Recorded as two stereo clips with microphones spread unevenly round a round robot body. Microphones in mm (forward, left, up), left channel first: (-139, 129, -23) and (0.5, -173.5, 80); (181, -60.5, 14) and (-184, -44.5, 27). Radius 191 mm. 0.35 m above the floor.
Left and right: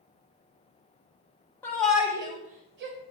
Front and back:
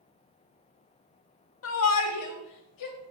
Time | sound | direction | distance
1.6 | a shout | 45° left | 1.9 m